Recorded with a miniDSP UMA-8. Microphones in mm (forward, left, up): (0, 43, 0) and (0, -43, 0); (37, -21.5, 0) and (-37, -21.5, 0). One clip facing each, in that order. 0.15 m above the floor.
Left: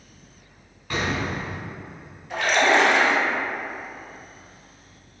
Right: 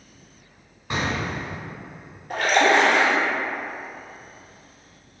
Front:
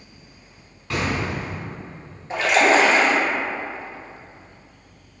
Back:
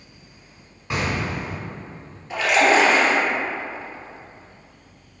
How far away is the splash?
About 1.0 m.